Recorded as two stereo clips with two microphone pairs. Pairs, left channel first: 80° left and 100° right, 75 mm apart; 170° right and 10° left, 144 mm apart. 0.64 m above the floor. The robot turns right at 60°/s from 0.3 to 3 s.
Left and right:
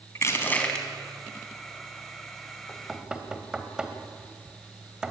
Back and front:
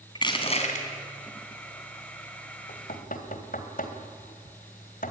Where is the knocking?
165° left, 2 m; by 5.1 s straight behind, 2 m.